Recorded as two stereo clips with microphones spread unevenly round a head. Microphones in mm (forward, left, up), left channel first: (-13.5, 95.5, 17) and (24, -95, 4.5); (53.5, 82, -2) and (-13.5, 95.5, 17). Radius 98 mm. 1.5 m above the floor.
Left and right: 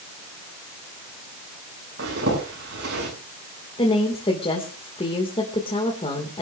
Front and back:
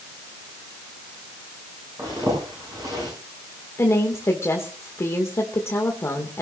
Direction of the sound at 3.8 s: 35° left.